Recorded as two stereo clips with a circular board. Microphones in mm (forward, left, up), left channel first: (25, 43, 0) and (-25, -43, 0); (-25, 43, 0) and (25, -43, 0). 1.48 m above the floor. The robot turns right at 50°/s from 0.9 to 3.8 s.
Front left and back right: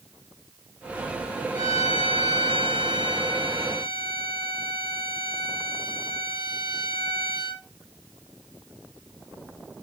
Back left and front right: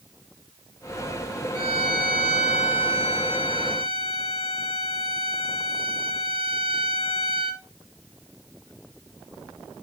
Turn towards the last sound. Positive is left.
turn(degrees=-60)